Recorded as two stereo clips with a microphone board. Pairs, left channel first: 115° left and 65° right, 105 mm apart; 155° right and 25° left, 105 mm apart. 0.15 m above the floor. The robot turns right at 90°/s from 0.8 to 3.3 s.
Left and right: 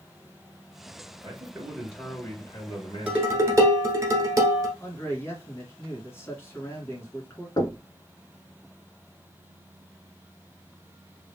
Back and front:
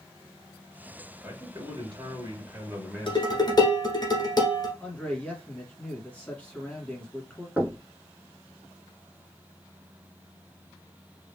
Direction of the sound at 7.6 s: 90° left.